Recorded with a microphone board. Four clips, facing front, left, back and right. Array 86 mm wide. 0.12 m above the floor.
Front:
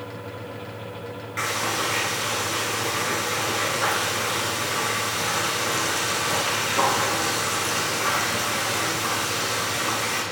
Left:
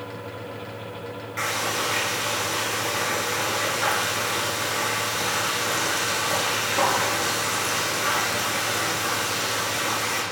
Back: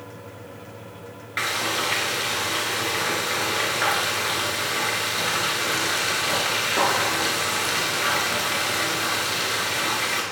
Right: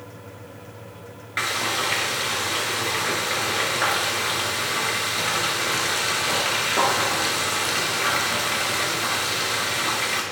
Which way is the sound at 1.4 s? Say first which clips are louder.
Right 1 dB, even; 125° right.